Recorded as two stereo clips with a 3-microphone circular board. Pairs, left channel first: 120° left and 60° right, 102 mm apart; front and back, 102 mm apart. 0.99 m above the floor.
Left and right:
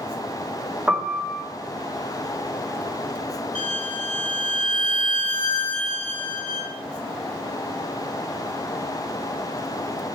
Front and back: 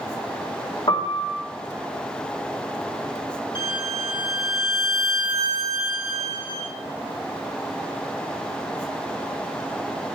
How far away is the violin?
About 3 m.